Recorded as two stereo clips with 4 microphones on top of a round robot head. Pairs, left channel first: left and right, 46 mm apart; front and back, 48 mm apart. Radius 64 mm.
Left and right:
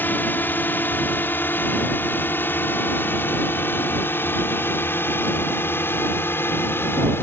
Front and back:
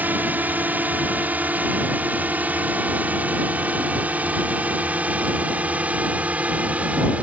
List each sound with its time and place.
0.0 s a drone: 130° left; by 7.2 s 120° left